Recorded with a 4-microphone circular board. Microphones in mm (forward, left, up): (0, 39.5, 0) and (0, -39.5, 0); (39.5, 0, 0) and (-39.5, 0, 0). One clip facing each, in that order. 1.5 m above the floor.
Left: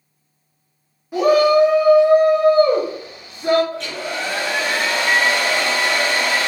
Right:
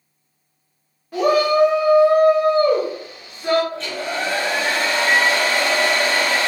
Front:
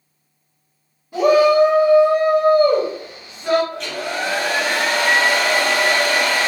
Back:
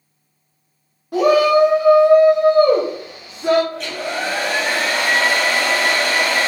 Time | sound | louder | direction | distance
1.1 | a shout | left 3 dB, even | 170° left | 0.7 m
3.7 | a hair dryer | right 1 dB, back 1 dB | 95° right | 1.4 m